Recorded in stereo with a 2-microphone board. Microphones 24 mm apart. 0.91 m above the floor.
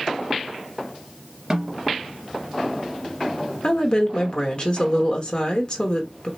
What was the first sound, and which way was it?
A snare drum, 30° right (ahead or behind).